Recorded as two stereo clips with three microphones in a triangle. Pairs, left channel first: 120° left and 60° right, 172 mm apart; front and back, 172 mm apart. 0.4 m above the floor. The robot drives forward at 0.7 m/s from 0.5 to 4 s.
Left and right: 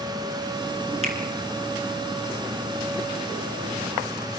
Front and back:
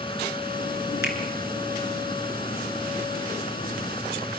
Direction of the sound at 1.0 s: 10° right.